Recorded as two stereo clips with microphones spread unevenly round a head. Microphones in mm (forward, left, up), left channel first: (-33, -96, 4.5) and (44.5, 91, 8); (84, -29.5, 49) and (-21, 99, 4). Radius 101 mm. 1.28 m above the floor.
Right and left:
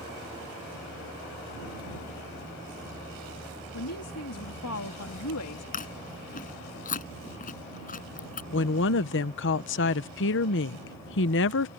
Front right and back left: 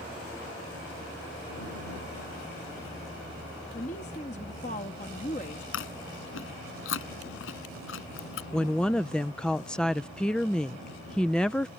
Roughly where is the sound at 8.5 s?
Behind right.